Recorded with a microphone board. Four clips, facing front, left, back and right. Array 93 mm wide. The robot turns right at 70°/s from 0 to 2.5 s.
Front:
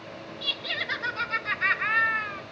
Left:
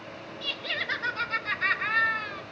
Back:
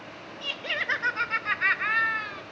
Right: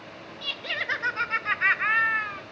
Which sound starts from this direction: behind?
Laughter, at 0.4 s.